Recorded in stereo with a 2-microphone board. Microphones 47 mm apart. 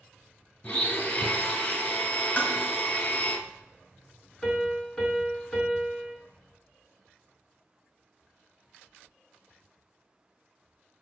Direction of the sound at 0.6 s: 35° left (ahead or behind).